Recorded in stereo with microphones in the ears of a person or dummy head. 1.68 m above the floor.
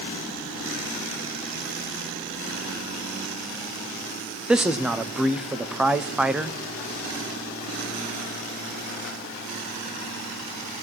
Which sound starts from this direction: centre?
A man speaking, at 4.5 s.